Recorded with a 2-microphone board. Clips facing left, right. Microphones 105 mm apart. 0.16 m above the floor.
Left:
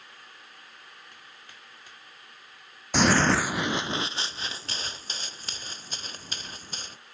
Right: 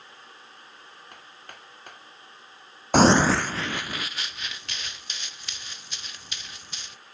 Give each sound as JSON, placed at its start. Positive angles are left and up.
{"t": 1.1, "sound": "hammering", "side_deg": -60}
{"t": 2.9, "sound": "running footsteps", "side_deg": -55}